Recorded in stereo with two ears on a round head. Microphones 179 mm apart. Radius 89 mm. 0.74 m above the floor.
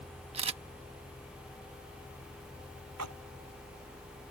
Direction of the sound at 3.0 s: 85° right.